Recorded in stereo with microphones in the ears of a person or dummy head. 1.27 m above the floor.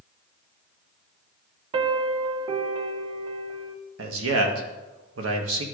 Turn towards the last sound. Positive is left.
turn(degrees=-85)